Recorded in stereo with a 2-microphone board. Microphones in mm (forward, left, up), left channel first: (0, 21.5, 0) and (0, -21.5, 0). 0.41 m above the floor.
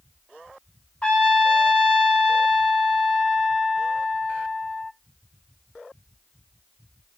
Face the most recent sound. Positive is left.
turn(degrees=30)  # may be behind; listen again after turning